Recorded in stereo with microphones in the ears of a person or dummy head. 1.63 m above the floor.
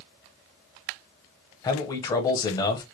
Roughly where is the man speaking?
Left.